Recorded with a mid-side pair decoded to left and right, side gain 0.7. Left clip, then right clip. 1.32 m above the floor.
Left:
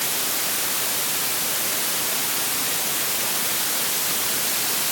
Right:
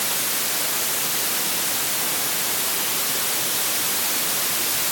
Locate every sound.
Only background noise.